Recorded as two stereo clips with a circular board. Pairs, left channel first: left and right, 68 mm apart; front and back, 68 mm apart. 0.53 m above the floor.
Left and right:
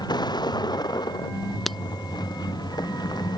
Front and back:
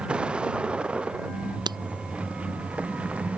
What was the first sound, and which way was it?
A vehicle, 105° left.